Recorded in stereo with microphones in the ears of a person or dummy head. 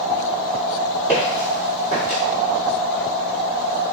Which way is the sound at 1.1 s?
10° right (ahead or behind).